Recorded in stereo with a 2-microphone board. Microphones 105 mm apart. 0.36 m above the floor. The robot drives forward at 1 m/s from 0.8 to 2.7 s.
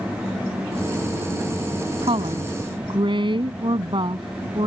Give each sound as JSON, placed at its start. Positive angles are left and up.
{"t": 2.0, "sound": "a woman speaking", "side_deg": -65}